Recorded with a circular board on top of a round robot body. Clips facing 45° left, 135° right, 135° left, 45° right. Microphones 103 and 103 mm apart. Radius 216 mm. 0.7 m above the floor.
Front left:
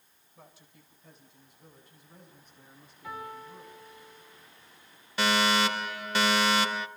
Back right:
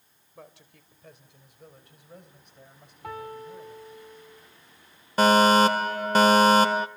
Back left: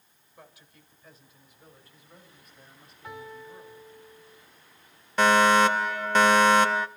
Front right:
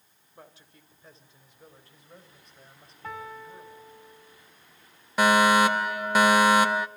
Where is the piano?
95° right, 3.5 m.